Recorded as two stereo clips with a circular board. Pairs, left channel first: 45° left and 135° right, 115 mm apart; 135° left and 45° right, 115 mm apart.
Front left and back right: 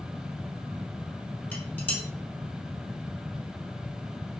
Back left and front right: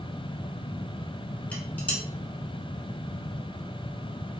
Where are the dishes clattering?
90° left, 0.8 m.